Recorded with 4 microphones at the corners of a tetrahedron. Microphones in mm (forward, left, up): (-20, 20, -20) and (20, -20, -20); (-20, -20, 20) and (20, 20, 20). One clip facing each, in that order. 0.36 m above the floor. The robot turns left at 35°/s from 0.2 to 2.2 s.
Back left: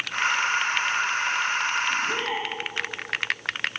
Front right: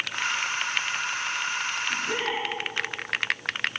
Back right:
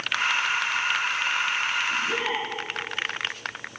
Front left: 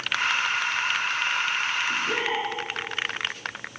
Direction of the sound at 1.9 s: 25° left.